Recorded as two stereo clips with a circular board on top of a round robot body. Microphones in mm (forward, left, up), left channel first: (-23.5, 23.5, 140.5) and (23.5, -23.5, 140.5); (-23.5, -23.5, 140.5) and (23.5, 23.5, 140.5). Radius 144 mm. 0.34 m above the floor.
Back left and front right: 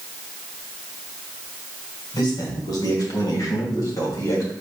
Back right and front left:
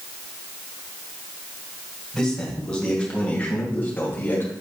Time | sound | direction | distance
2.1 | a man speaking | 145° left | 3 m